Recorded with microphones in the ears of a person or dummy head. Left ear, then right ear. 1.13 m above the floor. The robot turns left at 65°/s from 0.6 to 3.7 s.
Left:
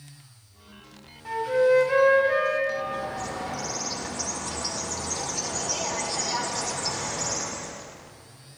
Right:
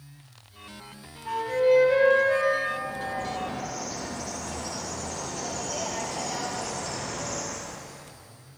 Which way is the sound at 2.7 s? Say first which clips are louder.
Left 1 dB; 100° left.